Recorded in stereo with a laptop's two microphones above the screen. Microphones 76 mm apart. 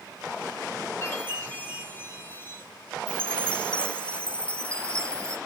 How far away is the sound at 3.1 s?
About 1.3 m.